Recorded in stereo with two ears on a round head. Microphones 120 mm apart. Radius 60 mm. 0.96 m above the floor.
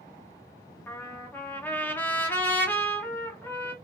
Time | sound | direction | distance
0.9 | a trumpet | 15° left (ahead or behind) | 1.1 m